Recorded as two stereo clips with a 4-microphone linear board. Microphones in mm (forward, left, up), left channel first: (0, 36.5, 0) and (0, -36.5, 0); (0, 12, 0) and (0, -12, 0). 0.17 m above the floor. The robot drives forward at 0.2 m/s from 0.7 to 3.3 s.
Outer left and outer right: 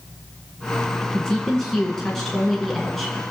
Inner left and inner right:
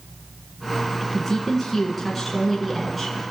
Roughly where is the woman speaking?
Centre.